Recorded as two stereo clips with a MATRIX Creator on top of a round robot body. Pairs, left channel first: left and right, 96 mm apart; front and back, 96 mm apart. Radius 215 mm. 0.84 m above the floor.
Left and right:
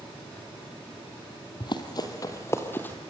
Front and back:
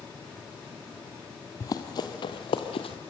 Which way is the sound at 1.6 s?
50° left.